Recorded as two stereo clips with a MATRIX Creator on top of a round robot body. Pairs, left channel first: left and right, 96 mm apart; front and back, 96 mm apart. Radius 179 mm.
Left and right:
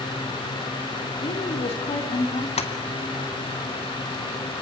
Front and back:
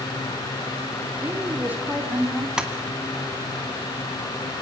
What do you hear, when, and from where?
1.2 s a woman speaking: 110° left, 4 m; by 2.5 s 100° left, 3.5 m
2.6 s tapping: 95° left, 2 m